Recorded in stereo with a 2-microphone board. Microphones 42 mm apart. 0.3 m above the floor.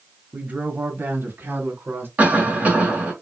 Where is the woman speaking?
40° right (ahead or behind), 1.1 m; by 2.1 s 60° right (ahead or behind), 2.5 m.